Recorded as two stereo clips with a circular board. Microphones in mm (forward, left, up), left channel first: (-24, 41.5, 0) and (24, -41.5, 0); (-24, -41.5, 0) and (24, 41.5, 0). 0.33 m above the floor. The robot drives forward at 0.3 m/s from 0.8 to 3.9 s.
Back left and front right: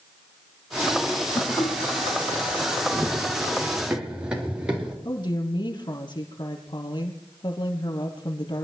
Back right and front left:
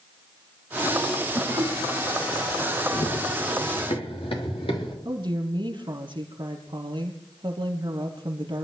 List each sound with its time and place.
1.4 s laughter: 60° left, 1.9 m; by 1.7 s 65° left, 1.9 m
2.9 s running footsteps: 130° right, 1.7 m; by 5.0 s 140° right, 4.5 m
5.0 s a woman speaking: 90° left, 5 m